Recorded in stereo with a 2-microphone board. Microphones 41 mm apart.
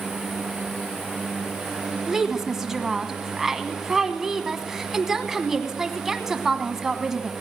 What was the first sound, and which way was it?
A woman speaking, 10° right (ahead or behind).